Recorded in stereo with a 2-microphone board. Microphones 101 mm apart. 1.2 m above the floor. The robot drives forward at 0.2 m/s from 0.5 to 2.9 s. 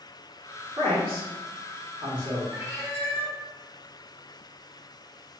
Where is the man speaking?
60° right (ahead or behind), 1.4 m; by 2.4 s 50° right (ahead or behind), 1.6 m.